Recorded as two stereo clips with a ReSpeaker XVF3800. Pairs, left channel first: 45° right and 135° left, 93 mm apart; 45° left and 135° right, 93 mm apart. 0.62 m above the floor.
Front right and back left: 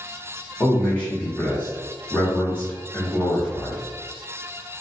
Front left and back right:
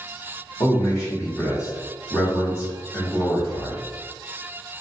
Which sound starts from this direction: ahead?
A man speaking, at 0.6 s.